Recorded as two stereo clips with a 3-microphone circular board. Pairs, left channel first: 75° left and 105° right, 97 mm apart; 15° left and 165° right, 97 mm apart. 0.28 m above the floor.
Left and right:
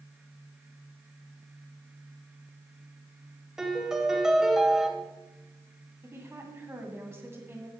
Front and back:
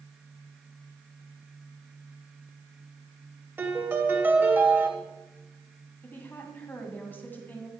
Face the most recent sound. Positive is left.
turn(degrees=-50)